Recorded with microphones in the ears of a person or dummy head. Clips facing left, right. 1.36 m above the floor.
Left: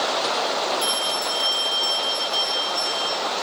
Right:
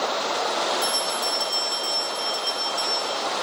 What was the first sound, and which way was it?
A bell, 40° left (ahead or behind).